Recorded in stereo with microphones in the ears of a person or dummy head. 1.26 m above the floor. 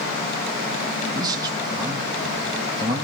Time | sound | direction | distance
1.1 | a man speaking | 25° right (ahead or behind) | 1.6 m